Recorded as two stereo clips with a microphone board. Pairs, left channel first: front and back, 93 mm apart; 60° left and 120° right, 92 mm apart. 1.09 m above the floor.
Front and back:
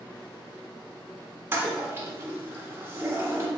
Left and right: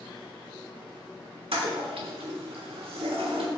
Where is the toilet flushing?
115° right, 1.3 m.